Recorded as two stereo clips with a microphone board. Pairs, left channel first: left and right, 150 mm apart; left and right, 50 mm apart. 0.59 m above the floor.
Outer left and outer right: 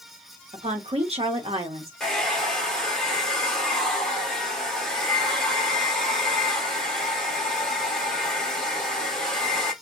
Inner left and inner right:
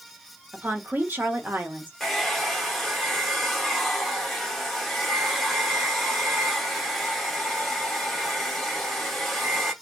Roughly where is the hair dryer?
Centre.